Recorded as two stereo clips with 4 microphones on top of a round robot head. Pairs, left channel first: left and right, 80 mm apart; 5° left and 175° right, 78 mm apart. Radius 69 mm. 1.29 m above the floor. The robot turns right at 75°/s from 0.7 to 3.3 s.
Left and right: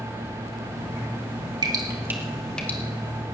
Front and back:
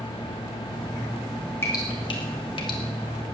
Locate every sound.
1.6 s dripping: 60° right, 2.5 m; by 2.8 s 25° left, 2.5 m